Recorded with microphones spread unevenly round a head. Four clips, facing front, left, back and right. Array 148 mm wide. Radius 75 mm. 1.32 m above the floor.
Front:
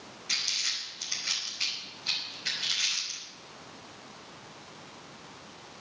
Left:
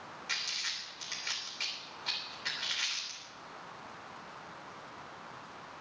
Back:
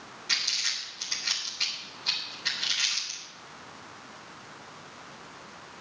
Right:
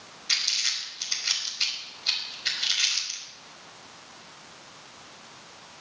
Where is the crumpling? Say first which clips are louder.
Right 8 dB, back 4 dB; 130° left, 3.5 m.